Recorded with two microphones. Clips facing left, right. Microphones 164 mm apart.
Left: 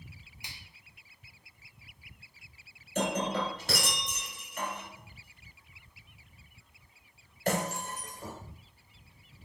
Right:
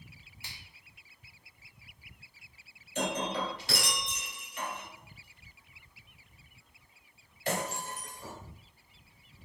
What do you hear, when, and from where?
0.4 s a finger snap: 15° left (ahead or behind), 0.9 m
3.0 s breaking glass: 50° left (ahead or behind), 1.7 m